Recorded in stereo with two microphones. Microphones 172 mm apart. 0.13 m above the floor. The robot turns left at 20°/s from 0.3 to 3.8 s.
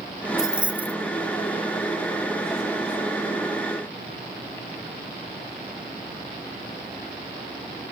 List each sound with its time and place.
0.4 s keys jangling: 5° right (ahead or behind), 1.2 m; by 0.9 s 10° right (ahead or behind), 1.2 m